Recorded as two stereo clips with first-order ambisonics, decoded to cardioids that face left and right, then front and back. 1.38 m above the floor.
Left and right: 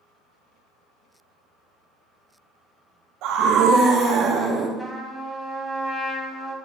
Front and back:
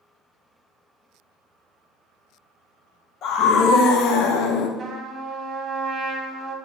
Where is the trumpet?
170° left, 1.3 m.